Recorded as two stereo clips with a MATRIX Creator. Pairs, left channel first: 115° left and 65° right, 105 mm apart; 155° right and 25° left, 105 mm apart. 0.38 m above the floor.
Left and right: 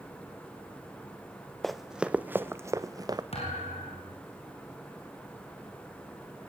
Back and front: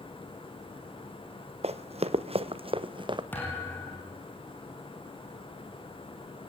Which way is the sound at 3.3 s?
130° left.